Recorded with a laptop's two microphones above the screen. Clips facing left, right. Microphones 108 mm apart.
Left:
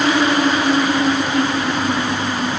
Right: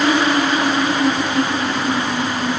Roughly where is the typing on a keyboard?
No typing on a keyboard in this recording.